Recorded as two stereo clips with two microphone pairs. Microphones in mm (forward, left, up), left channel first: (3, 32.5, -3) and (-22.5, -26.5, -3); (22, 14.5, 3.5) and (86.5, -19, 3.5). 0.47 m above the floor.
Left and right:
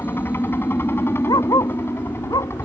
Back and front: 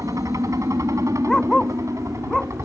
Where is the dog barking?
70° left.